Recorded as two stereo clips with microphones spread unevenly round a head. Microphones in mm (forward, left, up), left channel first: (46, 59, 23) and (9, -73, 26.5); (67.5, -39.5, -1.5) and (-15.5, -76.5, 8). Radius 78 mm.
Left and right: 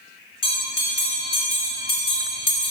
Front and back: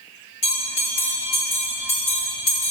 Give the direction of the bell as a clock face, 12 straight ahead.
11 o'clock.